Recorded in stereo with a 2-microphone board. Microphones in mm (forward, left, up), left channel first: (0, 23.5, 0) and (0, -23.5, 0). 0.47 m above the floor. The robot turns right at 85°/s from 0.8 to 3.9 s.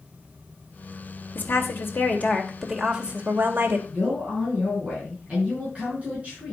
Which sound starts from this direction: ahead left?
A woman speaking, at 1.4 s.